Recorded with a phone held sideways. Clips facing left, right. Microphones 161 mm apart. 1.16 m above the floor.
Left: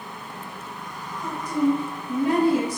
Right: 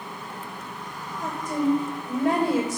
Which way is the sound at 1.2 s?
80° right.